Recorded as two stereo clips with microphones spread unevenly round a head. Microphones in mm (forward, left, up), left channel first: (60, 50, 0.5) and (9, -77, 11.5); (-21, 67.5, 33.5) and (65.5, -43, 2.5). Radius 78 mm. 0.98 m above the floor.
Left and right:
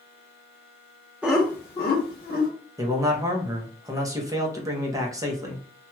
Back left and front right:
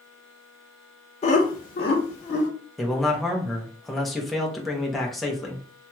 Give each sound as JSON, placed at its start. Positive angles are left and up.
{"t": 1.2, "sound": "laughter", "azimuth_deg": 165, "distance_m": 0.6}
{"t": 2.8, "sound": "a man speaking", "azimuth_deg": -105, "distance_m": 0.8}